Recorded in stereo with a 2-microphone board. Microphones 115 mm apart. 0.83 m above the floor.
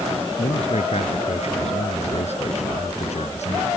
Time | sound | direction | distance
0.4 | a man speaking | 70° left (ahead or behind) | ?